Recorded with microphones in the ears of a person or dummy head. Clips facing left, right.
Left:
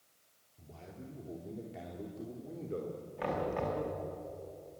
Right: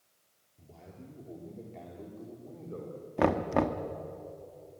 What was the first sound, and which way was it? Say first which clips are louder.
A man speaking: left 1 dB; 5° right (ahead or behind).